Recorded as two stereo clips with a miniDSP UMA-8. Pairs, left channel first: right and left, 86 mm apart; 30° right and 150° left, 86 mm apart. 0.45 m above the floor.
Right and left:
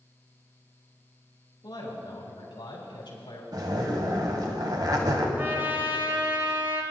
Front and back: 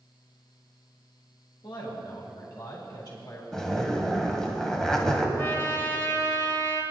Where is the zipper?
55° left, 1.3 m.